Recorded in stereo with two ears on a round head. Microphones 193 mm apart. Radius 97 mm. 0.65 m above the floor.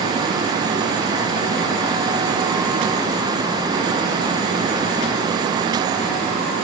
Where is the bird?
No bird in this recording.